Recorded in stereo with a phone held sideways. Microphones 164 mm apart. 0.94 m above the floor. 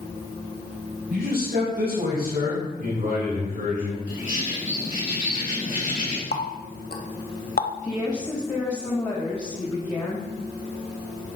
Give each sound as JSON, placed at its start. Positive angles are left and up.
{"t": 1.1, "sound": "a man speaking", "side_deg": -85, "distance_m": 4.0}
{"t": 4.1, "sound": "a bird", "side_deg": 55, "distance_m": 2.5}
{"t": 6.3, "sound": "a running tap", "side_deg": 70, "distance_m": 0.8}
{"t": 7.8, "sound": "a woman speaking", "side_deg": 25, "distance_m": 1.8}